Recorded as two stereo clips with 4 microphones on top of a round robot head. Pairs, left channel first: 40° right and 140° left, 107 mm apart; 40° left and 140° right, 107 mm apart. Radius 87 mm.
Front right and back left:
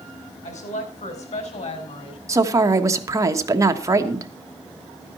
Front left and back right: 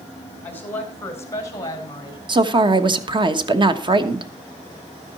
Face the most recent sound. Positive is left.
turn(degrees=-170)